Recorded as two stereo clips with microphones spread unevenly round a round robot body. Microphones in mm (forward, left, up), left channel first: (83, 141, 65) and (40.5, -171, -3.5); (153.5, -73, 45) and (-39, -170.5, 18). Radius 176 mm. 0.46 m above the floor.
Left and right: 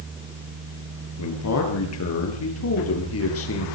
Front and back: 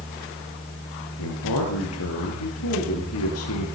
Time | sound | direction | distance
1.2 | a man speaking | 45° left | 9.5 m